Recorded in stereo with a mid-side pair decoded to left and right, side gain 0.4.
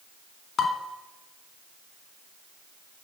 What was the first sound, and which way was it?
Dishes clattering, 60° left.